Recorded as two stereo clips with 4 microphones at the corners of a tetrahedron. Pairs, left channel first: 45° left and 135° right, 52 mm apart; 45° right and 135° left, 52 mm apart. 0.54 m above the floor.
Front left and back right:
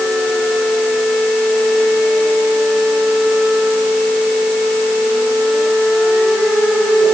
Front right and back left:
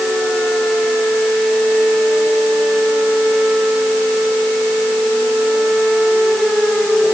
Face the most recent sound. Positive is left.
No sound to turn to.